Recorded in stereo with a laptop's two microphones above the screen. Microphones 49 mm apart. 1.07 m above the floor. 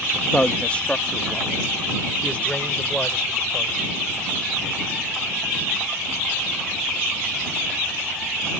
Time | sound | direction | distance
0.1 | a man speaking | 25° left (ahead or behind) | ?